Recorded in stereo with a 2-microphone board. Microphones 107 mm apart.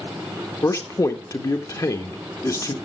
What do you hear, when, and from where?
0.6 s a man speaking: 30° left (ahead or behind), 1.1 m